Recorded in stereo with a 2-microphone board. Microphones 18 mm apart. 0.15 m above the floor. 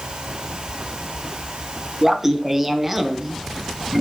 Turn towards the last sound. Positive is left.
turn(degrees=-15)  # may be behind; listen again after turning